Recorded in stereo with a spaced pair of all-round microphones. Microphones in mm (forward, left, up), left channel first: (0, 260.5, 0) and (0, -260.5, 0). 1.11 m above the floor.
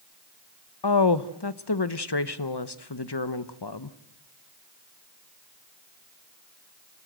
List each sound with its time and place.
0.8 s a woman speaking: 50° left (ahead or behind), 1.0 m